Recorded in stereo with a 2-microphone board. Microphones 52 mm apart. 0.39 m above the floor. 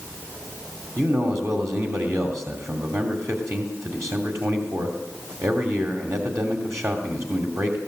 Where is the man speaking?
60° right (ahead or behind), 2.5 m.